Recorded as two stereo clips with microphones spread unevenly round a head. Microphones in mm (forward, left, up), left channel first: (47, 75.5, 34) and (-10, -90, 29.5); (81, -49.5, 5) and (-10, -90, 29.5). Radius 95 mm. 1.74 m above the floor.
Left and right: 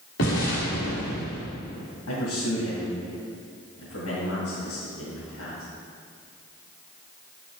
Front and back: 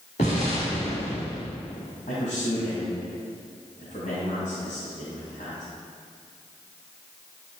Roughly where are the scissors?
No scissors in this recording.